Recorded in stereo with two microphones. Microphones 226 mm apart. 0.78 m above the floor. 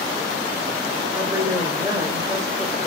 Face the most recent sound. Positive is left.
turn(degrees=-15)  # may be behind; listen again after turning